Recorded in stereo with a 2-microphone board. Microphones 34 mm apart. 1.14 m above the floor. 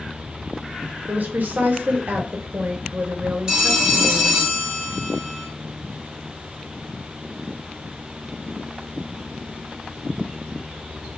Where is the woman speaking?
60° right (ahead or behind), 0.7 m.